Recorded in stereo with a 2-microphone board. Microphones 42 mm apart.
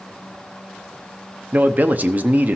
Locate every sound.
1.5 s a man speaking: 40° right (ahead or behind), 0.7 m